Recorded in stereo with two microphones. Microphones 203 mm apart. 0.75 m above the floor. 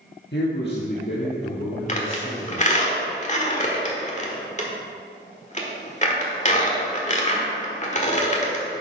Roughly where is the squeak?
Left.